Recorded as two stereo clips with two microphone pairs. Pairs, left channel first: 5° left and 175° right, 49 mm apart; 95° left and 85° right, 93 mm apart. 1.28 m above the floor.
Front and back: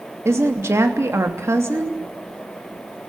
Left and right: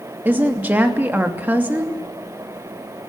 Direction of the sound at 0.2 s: 155° right.